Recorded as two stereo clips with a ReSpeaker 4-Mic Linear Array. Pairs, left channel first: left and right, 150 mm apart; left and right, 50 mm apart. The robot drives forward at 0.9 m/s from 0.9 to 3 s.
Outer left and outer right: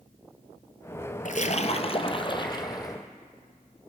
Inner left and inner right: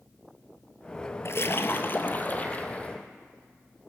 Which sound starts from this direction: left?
A splash, at 1.2 s.